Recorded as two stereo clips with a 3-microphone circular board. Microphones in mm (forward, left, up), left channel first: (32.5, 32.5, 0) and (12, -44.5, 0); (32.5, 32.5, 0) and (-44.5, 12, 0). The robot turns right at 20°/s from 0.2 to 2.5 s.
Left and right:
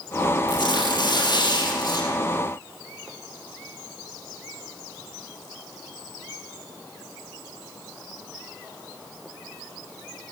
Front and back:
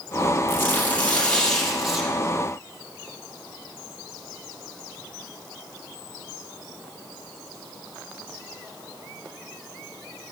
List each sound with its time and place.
0.5 s tearing paper: 75° left, 2.5 m; by 2.1 s 110° left, 2.5 m